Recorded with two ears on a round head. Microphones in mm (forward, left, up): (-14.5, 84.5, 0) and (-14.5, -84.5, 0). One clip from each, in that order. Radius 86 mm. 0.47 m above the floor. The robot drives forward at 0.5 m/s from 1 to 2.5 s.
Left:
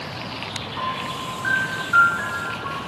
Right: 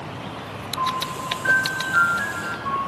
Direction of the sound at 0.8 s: 80° left.